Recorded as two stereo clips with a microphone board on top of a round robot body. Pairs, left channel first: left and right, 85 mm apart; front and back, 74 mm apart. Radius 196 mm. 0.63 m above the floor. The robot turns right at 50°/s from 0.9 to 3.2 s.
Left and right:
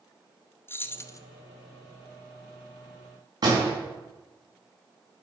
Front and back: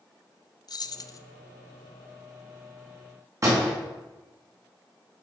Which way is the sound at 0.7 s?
30° left.